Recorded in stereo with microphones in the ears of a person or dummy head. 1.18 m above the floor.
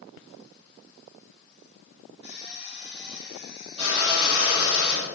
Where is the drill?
25° right (ahead or behind), 4.5 m.